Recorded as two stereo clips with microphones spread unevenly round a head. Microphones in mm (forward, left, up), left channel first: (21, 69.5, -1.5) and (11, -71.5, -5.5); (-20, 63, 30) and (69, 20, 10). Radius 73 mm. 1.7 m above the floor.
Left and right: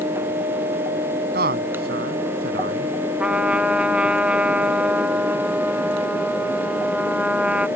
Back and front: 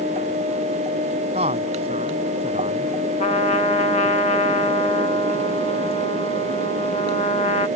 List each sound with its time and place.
1.3 s a man speaking: 70° right; by 3.0 s 80° right
3.2 s a trumpet: 175° right